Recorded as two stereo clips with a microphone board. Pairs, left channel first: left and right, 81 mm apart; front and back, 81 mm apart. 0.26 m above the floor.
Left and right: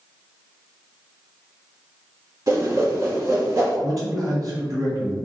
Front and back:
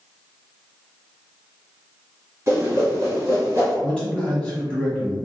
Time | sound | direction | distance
2.5 | a whoosh | 125° right | 1.8 m
3.8 | a man speaking | 75° right | 1.5 m